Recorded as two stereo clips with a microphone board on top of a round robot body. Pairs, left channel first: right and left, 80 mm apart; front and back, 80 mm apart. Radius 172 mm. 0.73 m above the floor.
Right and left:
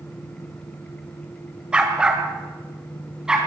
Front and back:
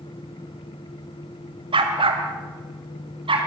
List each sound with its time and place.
1.7 s a dog barking: 170° left, 1.8 m